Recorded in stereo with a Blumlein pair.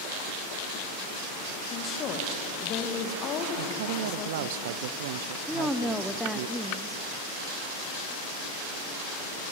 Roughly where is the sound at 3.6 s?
Ahead right.